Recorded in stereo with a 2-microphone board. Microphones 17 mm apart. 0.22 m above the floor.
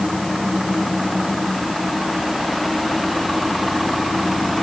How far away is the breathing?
I don't hear breathing.